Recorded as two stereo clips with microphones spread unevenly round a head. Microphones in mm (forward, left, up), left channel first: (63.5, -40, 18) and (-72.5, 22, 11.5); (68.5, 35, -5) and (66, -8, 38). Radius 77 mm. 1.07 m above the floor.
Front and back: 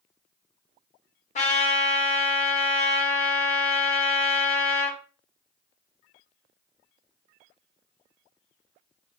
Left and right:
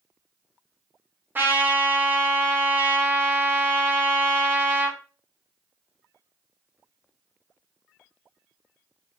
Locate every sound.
1.4 s a trumpet: straight ahead, 0.9 m